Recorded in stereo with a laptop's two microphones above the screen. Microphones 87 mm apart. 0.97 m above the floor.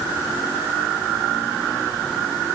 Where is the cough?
No cough in this recording.